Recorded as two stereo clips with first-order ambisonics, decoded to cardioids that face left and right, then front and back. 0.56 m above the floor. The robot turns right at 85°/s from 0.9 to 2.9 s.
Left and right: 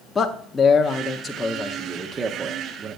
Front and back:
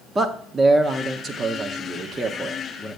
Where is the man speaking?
135° left, 0.7 m; by 3.0 s 55° right, 0.7 m.